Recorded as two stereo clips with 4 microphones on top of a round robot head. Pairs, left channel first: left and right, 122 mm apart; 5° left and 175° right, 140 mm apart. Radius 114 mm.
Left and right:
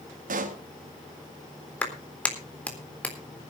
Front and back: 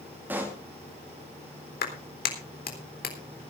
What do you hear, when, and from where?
0.3 s a pop: 95° right, 2 m
1.8 s a clap: 10° left, 3.5 m